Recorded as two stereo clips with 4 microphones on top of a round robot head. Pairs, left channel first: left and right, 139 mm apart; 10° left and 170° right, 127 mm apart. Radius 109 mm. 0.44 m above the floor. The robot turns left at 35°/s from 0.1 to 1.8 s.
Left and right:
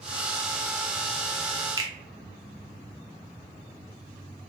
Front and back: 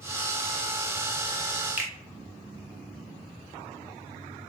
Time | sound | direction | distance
1.8 | a finger snap | 110° right | 0.6 m